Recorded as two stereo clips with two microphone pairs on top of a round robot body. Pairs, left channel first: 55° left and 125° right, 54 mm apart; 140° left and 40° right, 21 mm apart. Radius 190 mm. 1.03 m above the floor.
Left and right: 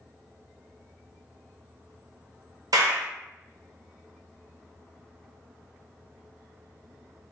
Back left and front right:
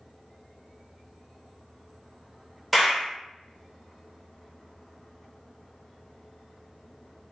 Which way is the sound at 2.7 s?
120° right.